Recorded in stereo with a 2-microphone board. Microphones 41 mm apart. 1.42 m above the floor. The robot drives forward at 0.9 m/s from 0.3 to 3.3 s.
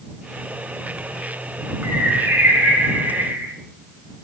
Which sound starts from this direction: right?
A bird, at 1.8 s.